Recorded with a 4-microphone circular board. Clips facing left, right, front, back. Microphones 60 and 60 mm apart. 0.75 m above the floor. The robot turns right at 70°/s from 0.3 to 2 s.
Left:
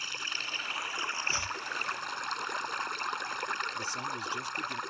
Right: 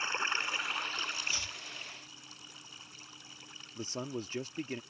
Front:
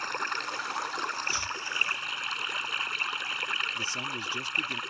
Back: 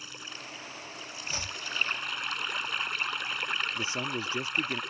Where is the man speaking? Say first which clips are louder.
Left 4 dB, back 1 dB; 130° right.